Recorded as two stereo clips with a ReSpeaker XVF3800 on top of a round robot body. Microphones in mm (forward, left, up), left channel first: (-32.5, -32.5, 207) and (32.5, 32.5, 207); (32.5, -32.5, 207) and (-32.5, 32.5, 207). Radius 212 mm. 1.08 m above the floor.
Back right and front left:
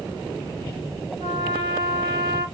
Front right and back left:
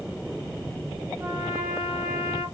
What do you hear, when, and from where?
1.2 s a trumpet: 65° left, 1.8 m